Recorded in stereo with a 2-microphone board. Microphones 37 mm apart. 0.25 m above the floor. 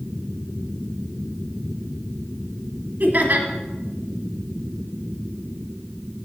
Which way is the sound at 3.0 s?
50° right (ahead or behind).